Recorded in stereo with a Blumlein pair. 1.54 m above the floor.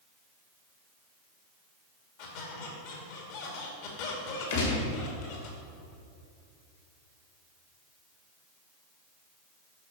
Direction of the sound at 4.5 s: 55° left.